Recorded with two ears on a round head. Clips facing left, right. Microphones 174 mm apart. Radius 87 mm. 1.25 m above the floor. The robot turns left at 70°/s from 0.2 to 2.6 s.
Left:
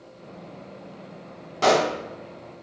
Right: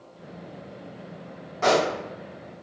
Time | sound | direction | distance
1.6 | a pop | 45° left (ahead or behind) | 0.6 m